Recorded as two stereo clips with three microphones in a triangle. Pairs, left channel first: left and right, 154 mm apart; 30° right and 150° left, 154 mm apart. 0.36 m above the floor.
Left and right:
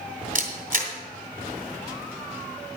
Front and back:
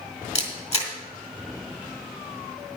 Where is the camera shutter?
75° right, 2.0 m.